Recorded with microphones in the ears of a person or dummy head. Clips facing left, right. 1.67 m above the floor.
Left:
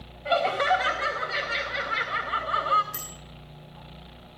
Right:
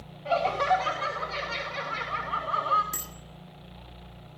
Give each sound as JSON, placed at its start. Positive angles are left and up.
{"t": 0.2, "sound": "laughter", "side_deg": 20, "distance_m": 3.0}
{"t": 2.9, "sound": "a bicycle bell", "side_deg": -75, "distance_m": 9.5}